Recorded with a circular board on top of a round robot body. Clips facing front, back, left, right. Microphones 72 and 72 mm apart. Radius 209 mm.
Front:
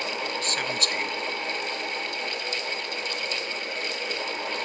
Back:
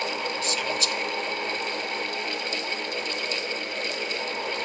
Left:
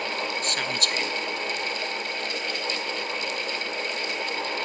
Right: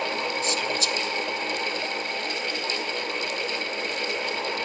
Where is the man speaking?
50° left.